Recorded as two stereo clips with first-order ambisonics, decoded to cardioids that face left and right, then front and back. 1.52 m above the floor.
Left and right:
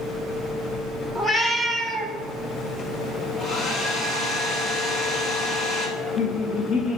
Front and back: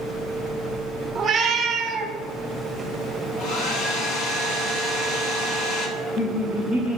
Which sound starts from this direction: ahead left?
Laughter, at 6.0 s.